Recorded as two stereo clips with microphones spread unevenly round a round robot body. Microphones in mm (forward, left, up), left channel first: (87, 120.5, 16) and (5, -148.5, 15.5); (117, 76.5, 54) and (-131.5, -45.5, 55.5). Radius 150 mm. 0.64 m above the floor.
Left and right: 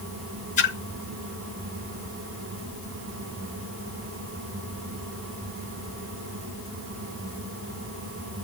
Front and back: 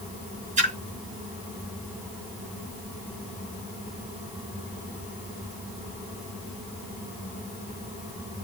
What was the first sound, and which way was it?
A splash, 140° left.